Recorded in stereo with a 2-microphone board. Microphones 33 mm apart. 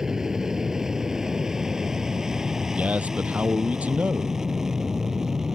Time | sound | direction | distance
0.0 | an aircraft | 15° right (ahead or behind) | ?
2.8 | a man speaking | 45° right (ahead or behind) | ?